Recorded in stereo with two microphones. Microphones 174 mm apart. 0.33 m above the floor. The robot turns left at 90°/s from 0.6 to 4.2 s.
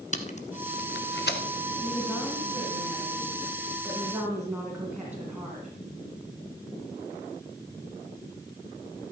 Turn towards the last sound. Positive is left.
turn(degrees=-10)